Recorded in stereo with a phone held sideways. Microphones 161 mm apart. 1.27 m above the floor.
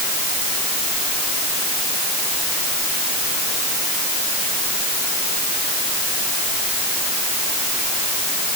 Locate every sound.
Only background noise.